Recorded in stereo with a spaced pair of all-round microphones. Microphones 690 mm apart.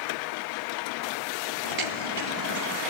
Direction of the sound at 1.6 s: 50° right (ahead or behind).